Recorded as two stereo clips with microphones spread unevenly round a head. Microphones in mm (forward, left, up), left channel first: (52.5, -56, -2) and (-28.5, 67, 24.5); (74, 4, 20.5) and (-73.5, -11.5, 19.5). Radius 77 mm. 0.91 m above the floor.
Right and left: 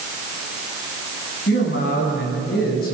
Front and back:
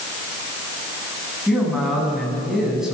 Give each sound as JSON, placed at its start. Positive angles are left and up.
{"t": 1.5, "sound": "a man speaking", "azimuth_deg": -85, "distance_m": 7.0}